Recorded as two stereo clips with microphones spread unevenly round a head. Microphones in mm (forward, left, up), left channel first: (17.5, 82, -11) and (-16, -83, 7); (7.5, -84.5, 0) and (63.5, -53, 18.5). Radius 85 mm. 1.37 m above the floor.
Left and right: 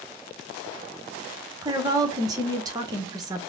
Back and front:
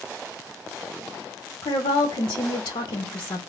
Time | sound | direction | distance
1.6 | a woman speaking | 170° right | 0.9 m